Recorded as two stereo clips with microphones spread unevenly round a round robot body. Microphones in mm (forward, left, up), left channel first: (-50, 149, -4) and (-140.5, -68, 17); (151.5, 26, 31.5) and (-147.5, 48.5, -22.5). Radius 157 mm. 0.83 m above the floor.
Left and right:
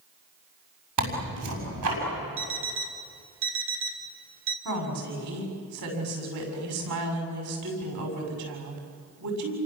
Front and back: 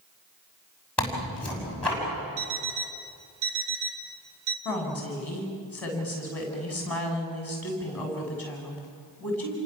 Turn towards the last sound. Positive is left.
turn(degrees=-90)